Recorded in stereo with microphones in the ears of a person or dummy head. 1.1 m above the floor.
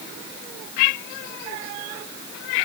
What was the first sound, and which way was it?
Only background noise.